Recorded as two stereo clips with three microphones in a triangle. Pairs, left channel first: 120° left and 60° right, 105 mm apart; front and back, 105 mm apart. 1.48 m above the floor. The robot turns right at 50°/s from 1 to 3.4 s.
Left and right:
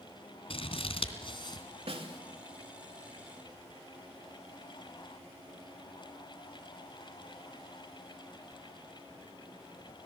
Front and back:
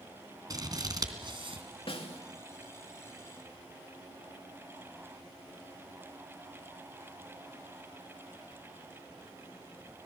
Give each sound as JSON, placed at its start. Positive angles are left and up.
{"t": 0.5, "sound": "scissors", "azimuth_deg": 135, "distance_m": 2.5}
{"t": 1.9, "sound": "a snare drum", "azimuth_deg": -35, "distance_m": 2.5}